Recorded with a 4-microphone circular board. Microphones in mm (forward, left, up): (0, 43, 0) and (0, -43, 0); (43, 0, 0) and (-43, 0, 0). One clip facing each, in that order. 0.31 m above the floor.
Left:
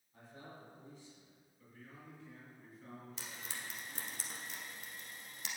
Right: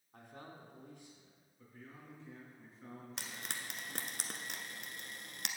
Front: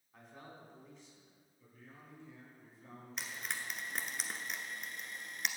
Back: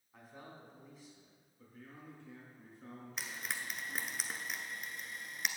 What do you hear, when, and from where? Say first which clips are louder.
0.1 s a man speaking: right 1 dB, back 1 dB; 95° right, 3 m
1.6 s a man speaking: right 1 dB, back 4 dB; 150° right, 5 m
3.2 s frying: right 4 dB, even; 90° right, 1.0 m